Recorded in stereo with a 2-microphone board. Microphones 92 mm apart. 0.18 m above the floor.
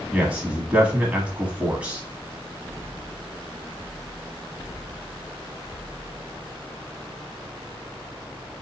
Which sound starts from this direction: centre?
A man speaking, at 0.1 s.